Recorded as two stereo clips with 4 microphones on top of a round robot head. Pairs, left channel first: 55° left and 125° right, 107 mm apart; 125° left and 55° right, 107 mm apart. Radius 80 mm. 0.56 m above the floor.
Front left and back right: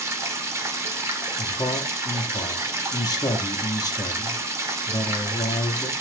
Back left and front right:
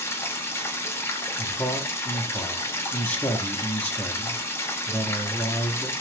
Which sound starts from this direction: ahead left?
A man speaking, at 1.4 s.